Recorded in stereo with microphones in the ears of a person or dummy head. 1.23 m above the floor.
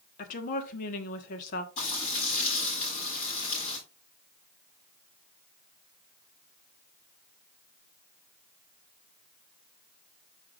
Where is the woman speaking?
45° left (ahead or behind), 1.5 m.